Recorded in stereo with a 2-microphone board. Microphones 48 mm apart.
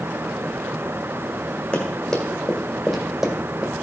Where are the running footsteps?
20° left (ahead or behind), 2 m; by 3.7 s 20° right (ahead or behind), 1.5 m.